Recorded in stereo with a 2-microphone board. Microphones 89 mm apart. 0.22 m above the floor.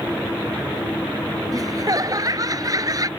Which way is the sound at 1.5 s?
45° right (ahead or behind).